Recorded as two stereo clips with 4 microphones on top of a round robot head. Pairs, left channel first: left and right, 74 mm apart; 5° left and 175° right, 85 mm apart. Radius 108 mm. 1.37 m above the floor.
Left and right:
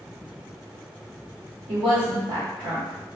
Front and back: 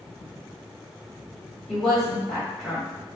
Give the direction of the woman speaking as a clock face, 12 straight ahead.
3 o'clock.